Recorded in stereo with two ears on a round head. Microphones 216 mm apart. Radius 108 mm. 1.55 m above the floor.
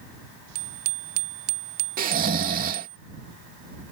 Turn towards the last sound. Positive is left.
turn(degrees=-35)  # may be behind; listen again after turning